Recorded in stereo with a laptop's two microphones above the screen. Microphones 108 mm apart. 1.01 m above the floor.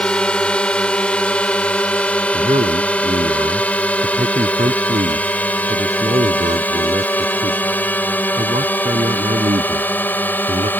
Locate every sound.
0.0 s a drone: 10° left (ahead or behind); by 10.8 s 15° left (ahead or behind)
2.3 s a man speaking: 70° right (ahead or behind)